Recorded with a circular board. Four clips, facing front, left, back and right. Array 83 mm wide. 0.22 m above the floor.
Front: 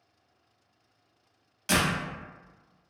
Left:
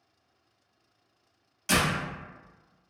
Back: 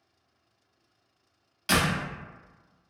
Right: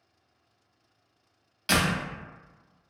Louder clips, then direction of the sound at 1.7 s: Right 1 dB, back 1 dB; 115° right.